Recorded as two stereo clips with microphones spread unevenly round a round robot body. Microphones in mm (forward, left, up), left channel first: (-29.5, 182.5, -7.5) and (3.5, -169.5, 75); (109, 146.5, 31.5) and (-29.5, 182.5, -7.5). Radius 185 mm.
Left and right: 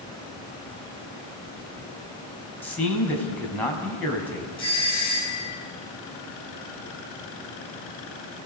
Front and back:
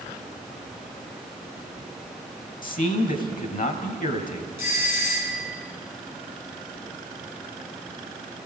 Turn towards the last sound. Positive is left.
turn(degrees=25)